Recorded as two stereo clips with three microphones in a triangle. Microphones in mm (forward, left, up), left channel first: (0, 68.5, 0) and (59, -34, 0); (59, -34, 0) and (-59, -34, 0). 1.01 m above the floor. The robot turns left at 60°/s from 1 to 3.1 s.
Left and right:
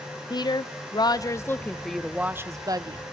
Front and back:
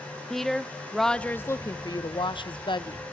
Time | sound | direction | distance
0.3 | a woman speaking | 85° left | 0.6 m